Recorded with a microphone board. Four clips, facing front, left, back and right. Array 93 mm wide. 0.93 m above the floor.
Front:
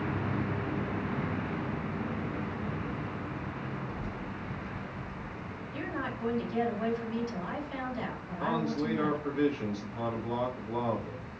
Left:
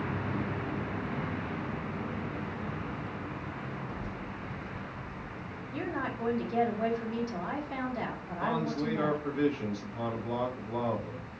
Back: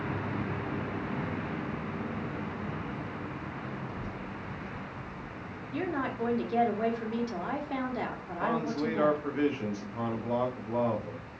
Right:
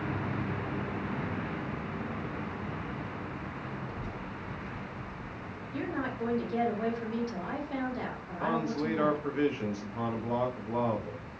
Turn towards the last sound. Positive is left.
turn(degrees=-135)